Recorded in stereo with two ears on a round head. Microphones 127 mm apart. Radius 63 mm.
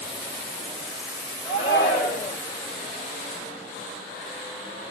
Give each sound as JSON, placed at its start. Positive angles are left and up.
{"t": 1.4, "sound": "a shout", "side_deg": 45, "distance_m": 2.0}